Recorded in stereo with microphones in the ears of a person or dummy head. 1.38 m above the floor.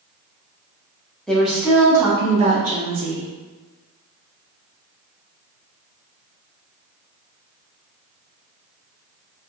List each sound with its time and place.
1.3 s a woman speaking: 5° left (ahead or behind), 1.0 m; by 3.3 s 55° right (ahead or behind), 1.2 m